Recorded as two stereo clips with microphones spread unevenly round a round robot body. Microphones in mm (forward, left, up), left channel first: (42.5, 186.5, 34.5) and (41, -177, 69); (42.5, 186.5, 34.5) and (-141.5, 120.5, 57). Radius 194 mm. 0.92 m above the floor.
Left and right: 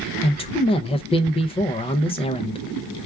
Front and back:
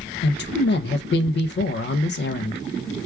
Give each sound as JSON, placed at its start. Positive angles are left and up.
{"t": 0.2, "sound": "a man speaking", "azimuth_deg": 20, "distance_m": 0.5}